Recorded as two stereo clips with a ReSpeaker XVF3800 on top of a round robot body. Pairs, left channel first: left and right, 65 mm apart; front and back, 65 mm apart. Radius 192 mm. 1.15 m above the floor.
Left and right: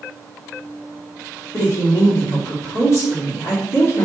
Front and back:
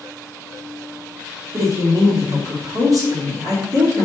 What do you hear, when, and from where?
1.5 s a woman speaking: 140° left, 3 m